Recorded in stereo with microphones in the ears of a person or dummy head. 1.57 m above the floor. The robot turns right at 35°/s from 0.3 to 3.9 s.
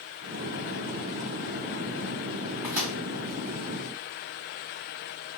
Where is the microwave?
10° right (ahead or behind), 1.7 m; by 3.0 s 25° right (ahead or behind), 1.7 m.